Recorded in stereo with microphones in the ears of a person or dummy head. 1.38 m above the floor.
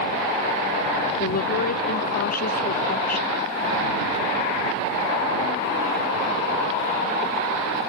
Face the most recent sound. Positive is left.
turn(degrees=50)  # may be behind; listen again after turning